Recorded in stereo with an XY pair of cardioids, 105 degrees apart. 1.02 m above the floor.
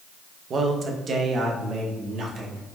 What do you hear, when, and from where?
0.5 s a man speaking: 50° right, 0.7 m; by 2.6 s 60° right, 1.8 m